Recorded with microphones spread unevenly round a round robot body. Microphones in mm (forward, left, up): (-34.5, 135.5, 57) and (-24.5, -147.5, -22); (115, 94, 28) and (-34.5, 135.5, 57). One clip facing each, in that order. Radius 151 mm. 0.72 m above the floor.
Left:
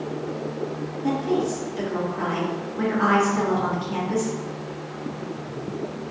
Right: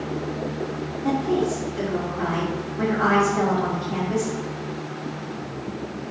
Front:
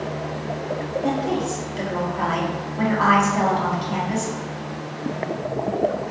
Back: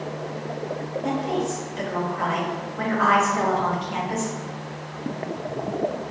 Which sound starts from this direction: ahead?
A woman speaking, at 1.0 s.